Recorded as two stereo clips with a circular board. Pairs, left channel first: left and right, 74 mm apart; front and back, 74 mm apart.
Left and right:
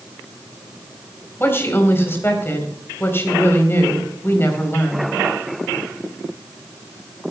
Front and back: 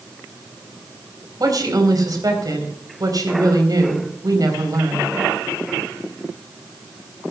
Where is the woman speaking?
150° left, 4 m.